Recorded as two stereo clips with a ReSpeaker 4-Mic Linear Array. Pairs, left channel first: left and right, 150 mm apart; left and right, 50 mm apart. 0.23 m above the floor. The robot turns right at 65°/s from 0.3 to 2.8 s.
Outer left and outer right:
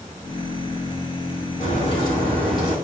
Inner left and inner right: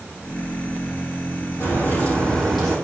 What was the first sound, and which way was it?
A crack, 120° left.